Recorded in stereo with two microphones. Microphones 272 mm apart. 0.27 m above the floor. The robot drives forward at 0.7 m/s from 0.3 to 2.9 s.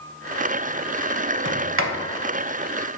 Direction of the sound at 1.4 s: 45° right (ahead or behind).